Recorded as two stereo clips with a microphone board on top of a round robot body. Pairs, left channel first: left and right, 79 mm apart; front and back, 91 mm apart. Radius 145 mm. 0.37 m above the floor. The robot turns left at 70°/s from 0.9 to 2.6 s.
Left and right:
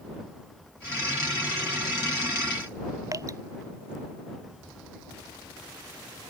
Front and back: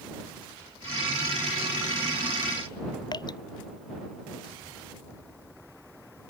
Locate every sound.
3.1 s dripping: 40° right